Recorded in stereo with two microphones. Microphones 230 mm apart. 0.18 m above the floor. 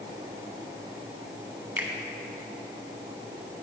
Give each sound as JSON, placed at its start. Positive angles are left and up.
{"t": 1.8, "sound": "a finger snap", "side_deg": -10, "distance_m": 1.2}